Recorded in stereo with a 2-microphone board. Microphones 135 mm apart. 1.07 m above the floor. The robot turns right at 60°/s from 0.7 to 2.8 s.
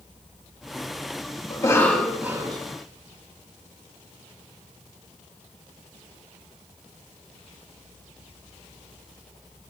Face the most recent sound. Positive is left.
turn(degrees=-135)